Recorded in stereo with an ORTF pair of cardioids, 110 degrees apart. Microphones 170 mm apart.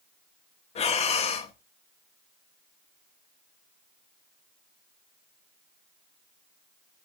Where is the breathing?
40° left, 1.1 m.